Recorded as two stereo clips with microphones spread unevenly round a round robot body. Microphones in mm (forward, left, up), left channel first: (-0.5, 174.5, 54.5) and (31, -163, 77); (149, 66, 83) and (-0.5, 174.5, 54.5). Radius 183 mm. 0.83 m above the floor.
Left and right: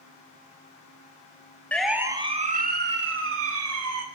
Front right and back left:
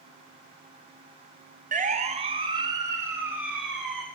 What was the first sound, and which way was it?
A siren, straight behind.